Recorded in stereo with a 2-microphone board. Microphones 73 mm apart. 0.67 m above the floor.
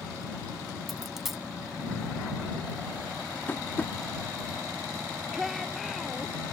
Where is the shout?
Centre (ahead or behind).